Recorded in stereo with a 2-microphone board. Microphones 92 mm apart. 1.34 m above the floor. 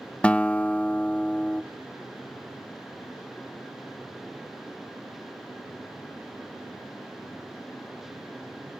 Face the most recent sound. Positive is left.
turn(degrees=10)  # may be behind; listen again after turning